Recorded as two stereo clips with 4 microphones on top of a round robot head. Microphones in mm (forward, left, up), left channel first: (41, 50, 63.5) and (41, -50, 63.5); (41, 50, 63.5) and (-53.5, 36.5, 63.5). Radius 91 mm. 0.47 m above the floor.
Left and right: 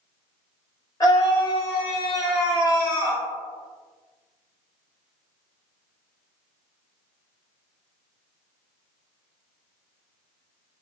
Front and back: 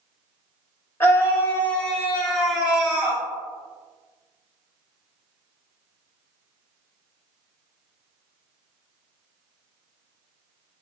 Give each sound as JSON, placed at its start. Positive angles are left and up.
{"t": 1.0, "sound": "a scream", "azimuth_deg": 65, "distance_m": 1.7}